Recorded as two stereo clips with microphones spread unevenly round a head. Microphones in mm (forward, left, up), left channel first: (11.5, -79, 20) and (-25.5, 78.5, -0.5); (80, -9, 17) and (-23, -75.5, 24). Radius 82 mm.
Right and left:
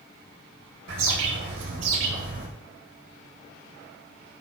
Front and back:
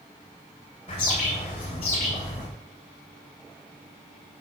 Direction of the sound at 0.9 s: 90° left.